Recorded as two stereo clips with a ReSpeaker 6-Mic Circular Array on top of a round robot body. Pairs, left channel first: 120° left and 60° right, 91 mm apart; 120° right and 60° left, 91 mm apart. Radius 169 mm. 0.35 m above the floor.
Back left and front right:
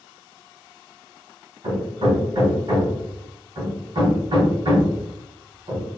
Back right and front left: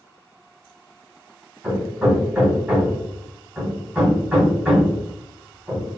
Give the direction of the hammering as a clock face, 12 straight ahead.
1 o'clock.